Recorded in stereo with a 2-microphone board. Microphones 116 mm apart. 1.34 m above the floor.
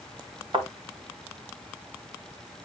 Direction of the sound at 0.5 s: 50° right (ahead or behind).